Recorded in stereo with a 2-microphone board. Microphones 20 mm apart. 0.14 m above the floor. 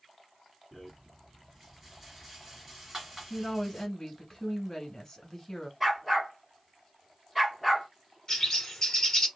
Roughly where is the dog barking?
Centre.